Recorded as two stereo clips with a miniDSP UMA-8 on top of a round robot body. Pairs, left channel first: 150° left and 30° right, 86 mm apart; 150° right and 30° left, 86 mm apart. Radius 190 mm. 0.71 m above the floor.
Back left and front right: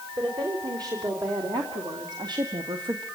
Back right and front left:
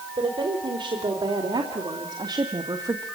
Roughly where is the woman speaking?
Ahead.